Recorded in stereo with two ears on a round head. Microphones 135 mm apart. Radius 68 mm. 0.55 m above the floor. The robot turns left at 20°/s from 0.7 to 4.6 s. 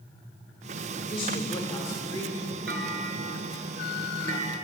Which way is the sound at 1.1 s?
35° left (ahead or behind).